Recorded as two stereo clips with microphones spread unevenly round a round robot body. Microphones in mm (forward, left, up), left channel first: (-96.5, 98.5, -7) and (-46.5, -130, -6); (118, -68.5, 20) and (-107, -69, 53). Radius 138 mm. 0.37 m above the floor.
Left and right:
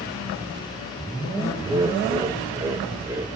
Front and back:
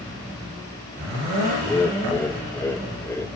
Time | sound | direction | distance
1.6 | laughter | 25° right | 1.3 m